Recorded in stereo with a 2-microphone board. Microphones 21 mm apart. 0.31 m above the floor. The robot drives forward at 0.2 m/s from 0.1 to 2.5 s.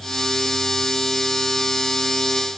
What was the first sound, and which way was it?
Only background noise.